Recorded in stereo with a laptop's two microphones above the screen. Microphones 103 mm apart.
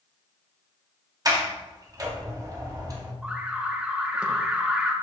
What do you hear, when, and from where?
1.2 s a sliding door: 35° right (ahead or behind), 1.1 m
3.2 s an alarm: 10° right (ahead or behind), 1.3 m